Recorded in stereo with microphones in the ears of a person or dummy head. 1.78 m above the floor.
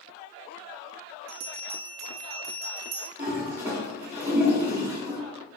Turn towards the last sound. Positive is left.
turn(degrees=-15)  # may be behind; listen again after turning